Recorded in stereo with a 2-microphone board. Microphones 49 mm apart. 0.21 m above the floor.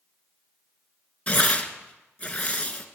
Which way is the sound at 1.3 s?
30° left (ahead or behind).